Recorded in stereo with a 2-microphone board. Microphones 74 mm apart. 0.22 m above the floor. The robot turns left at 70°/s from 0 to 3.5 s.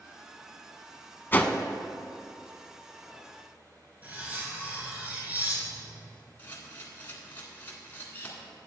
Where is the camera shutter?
25° left (ahead or behind), 1.7 m.